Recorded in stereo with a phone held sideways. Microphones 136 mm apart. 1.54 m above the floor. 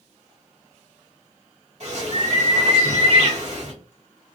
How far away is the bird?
About 2.5 m.